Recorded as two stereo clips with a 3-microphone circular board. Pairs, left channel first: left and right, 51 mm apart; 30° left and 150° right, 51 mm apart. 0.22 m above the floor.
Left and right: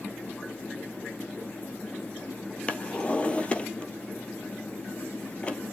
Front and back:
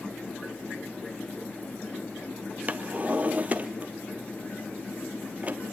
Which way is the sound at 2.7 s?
155° left.